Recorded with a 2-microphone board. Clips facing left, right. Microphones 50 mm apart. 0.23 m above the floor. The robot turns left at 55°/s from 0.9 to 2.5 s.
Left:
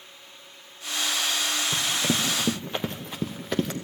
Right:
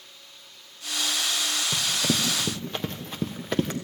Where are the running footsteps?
5° right (ahead or behind), 1.9 m.